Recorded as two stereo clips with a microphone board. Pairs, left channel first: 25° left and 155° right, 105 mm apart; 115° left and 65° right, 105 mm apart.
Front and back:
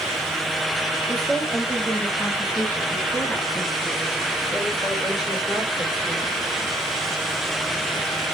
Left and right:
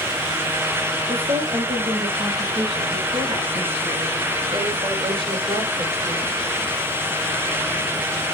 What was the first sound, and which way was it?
A woman speaking, 45° right.